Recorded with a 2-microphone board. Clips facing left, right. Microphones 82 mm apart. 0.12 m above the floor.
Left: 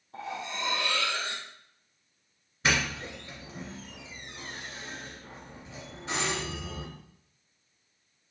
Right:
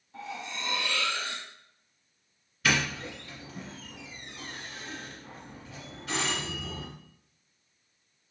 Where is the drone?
I don't hear a drone.